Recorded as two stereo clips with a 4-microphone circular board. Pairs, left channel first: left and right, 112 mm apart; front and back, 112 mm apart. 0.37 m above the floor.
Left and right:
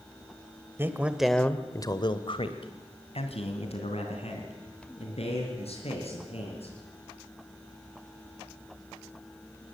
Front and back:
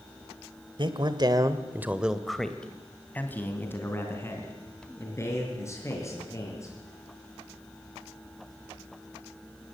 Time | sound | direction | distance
0.8 | a man speaking | 155° right | 1.6 m